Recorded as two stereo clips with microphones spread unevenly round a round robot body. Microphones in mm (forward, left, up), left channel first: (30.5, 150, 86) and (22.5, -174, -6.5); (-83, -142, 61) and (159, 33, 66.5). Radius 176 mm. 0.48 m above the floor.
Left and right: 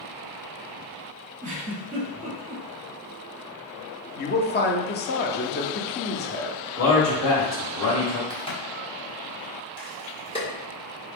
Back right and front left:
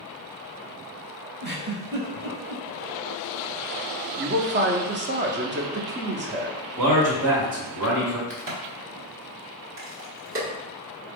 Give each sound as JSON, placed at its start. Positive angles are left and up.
{"t": 1.4, "sound": "a giggle", "azimuth_deg": -20, "distance_m": 1.6}
{"t": 4.2, "sound": "a man speaking", "azimuth_deg": 25, "distance_m": 0.7}
{"t": 6.8, "sound": "a man speaking", "azimuth_deg": 40, "distance_m": 1.8}
{"t": 8.3, "sound": "a crack", "azimuth_deg": 5, "distance_m": 1.7}